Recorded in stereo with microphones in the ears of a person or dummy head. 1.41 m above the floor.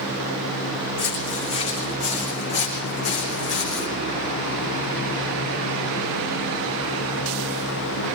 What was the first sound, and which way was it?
Footsteps, 40° left (ahead or behind).